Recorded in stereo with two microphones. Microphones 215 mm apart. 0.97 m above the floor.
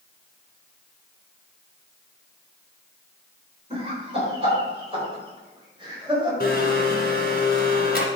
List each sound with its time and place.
3.7 s laughter: 25° right (ahead or behind), 4 m
6.4 s a blender: 45° left (ahead or behind), 2 m